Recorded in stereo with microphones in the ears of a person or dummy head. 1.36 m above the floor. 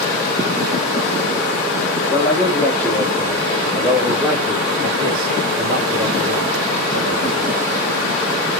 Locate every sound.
2.1 s a man speaking: 20° left (ahead or behind), 2.5 m; by 7.5 s 65° right (ahead or behind), 2 m